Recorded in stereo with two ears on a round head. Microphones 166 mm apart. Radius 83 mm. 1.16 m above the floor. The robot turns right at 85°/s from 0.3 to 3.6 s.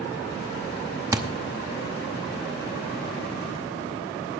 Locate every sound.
1.1 s a thud: 20° right (ahead or behind), 0.7 m; by 1.2 s 25° right (ahead or behind), 0.7 m